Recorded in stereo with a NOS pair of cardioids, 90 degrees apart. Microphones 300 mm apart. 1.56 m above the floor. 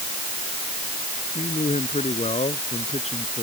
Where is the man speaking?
20° left.